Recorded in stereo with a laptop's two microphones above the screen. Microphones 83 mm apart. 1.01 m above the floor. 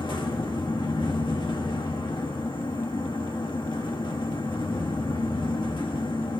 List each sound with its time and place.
0.0 s a fan: 70° left (ahead or behind), 2.0 m